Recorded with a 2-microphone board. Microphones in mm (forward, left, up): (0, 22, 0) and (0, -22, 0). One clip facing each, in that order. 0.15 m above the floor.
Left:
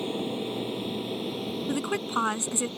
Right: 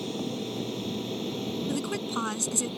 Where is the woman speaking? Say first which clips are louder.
Left 6 dB; 25° left (ahead or behind).